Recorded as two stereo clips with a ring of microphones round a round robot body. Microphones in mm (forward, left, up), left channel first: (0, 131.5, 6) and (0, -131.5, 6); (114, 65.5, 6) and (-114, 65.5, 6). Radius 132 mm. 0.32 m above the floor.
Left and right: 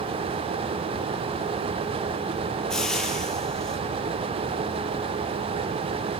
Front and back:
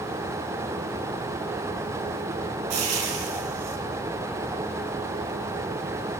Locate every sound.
2.7 s frying: straight behind, 4 m